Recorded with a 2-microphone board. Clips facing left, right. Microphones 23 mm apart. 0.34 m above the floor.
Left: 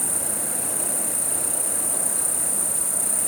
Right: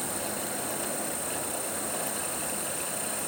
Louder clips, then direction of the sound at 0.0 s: Left 4 dB; 80° left.